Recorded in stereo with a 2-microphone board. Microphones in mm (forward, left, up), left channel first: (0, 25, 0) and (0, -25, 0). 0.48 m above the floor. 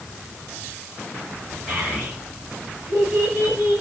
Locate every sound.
1.7 s a child speaking: 35° right (ahead or behind), 4 m; by 3.8 s 50° right (ahead or behind), 2 m